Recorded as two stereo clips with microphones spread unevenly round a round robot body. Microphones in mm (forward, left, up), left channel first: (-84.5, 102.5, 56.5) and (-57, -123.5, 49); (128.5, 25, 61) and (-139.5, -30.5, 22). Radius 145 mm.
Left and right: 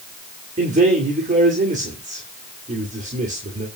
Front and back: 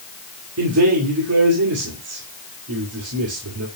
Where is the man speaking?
140° right, 2.5 m.